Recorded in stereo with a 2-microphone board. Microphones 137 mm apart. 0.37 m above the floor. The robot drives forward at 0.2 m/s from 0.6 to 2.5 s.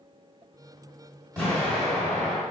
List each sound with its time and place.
1.4 s an explosion: 15° left (ahead or behind), 1.8 m; by 2.4 s 10° left (ahead or behind), 1.9 m